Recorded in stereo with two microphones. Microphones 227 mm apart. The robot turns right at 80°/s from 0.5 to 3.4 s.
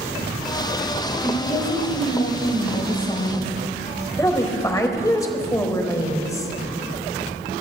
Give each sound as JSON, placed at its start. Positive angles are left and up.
{"t": 1.2, "sound": "a woman speaking", "azimuth_deg": 0, "distance_m": 1.1}
{"t": 4.2, "sound": "a woman speaking", "side_deg": 15, "distance_m": 1.0}